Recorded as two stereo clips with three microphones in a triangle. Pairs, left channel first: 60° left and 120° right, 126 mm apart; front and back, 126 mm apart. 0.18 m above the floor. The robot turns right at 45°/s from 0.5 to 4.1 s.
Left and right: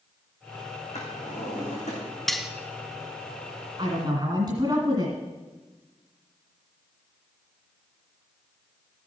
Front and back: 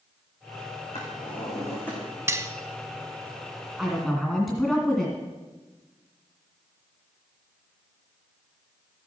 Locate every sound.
0.9 s a drawer: 35° left, 3.5 m; by 2.0 s 80° left, 3.5 m
2.3 s cutlery clinking: 145° left, 0.6 m; by 2.5 s 155° left, 0.6 m
3.8 s a woman speaking: 100° right, 1.9 m; by 5.2 s 90° right, 1.9 m